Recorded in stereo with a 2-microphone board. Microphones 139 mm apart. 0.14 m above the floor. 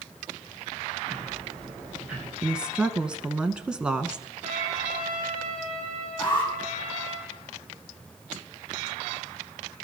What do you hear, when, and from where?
1.1 s ticking: 5° right (ahead or behind), 8.5 m
2.4 s a woman speaking: 5° right (ahead or behind), 1.1 m
4.4 s a trumpet: 55° right (ahead or behind), 5.5 m
6.2 s an alarm: 35° left (ahead or behind), 5.5 m